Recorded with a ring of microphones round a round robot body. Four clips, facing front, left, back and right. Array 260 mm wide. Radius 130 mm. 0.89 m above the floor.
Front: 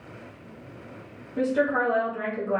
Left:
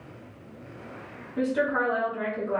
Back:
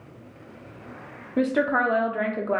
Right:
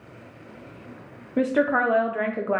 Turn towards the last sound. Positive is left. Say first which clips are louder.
# right 4 dB, back 1 dB
turn(degrees=-120)